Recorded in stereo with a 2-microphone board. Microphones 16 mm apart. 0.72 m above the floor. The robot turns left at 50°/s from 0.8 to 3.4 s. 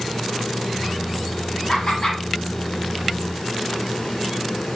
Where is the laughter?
50° left (ahead or behind), 1.6 m; by 2.2 s 60° left (ahead or behind), 1.6 m.